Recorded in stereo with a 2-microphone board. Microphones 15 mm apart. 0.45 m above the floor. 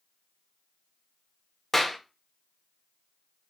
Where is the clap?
20° left (ahead or behind), 0.7 m.